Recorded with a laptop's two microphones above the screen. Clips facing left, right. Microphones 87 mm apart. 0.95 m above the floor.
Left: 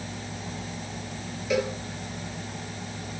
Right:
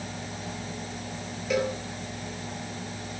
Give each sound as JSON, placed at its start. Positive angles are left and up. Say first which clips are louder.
{"t": 1.5, "sound": "a cowbell", "louder": "even", "side_deg": 0, "distance_m": 6.0}